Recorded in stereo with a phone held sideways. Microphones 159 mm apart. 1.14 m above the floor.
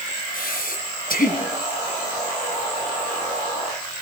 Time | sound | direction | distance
0.3 | breathing | 65° left (ahead or behind) | 4 m